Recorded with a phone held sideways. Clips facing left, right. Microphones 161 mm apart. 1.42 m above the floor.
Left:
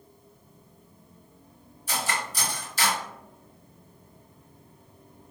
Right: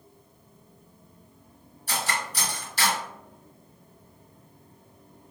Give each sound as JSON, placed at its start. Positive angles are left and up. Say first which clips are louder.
{"t": 1.9, "sound": "cutlery clinking", "louder": "even", "side_deg": -60, "distance_m": 1.6}